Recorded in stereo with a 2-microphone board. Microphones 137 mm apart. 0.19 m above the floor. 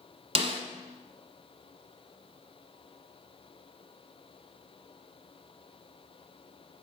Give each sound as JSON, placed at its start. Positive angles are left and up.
{"t": 0.3, "sound": "a snare drum", "side_deg": -45, "distance_m": 1.1}